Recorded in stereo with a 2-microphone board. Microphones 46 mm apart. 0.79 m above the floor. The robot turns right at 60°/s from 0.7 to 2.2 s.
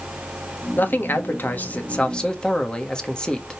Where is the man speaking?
65° left, 1.2 m; by 3.6 s 155° left, 1.2 m.